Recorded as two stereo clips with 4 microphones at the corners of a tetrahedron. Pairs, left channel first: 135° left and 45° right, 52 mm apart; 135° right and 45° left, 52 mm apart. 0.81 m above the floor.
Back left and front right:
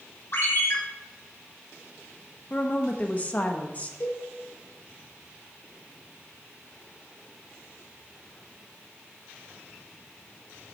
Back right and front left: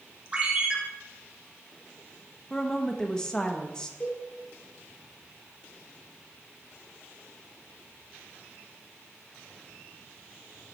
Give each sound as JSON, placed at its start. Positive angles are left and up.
{"t": 0.3, "sound": "a ringtone", "azimuth_deg": 110, "distance_m": 3.0}
{"t": 2.5, "sound": "a woman speaking", "azimuth_deg": 160, "distance_m": 0.9}
{"t": 4.0, "sound": "a cowbell", "azimuth_deg": 175, "distance_m": 3.0}